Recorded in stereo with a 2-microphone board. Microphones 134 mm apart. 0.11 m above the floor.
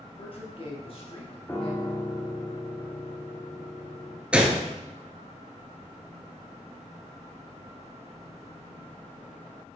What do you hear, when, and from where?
0.2 s a man speaking: 50° left (ahead or behind), 2 m
1.5 s a piano: 10° left (ahead or behind), 1.5 m
4.3 s a gunshot: 10° right (ahead or behind), 0.9 m